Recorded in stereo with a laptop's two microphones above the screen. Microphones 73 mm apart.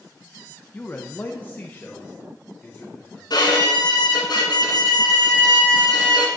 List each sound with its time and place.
0.7 s a man speaking: 20° left (ahead or behind), 0.6 m
3.3 s a violin: 65° left (ahead or behind), 2 m